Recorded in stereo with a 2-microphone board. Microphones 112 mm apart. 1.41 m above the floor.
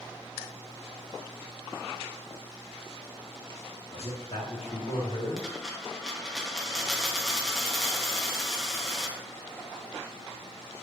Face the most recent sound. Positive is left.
turn(degrees=0)  # may be behind; listen again after turning